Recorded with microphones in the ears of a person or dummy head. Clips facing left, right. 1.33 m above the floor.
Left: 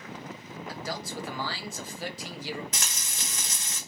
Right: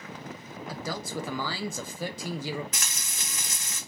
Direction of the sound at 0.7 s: 70° right (ahead or behind).